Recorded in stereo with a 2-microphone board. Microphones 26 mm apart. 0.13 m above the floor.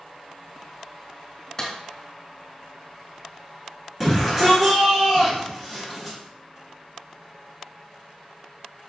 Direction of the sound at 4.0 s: 15° right (ahead or behind).